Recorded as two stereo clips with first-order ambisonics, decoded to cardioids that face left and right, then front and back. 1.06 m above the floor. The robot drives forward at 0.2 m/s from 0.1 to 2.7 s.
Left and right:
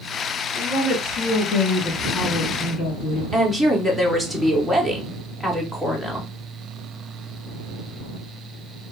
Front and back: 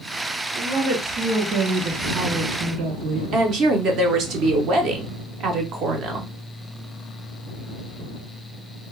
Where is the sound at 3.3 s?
170° left, 0.6 m.